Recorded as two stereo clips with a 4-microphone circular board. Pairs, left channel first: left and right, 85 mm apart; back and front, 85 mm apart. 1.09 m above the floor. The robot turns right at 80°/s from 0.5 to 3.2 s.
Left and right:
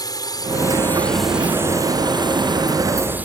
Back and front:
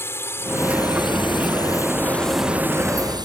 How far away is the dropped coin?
No dropped coin in this recording.